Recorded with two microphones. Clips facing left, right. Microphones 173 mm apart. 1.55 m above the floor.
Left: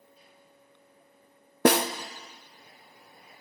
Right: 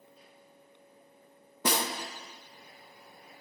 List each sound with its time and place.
1.6 s a snare drum: 70° left (ahead or behind), 0.6 m